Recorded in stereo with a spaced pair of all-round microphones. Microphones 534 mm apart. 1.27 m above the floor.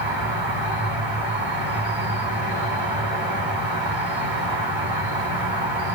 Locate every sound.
0.0 s an insect: centre (ahead or behind), 1.8 m